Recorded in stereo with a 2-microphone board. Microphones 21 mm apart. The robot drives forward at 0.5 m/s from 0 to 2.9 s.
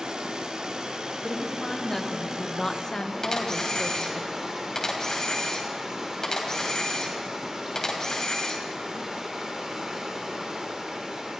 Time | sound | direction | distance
0.0 | running water | 55° right (ahead or behind) | 1.7 m
1.2 | a woman speaking | 20° left (ahead or behind) | 1.9 m
3.2 | a camera shutter | 30° left (ahead or behind) | 3 m